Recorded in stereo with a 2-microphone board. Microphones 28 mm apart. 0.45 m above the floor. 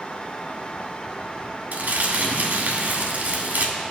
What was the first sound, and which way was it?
Crumpling, 80° right.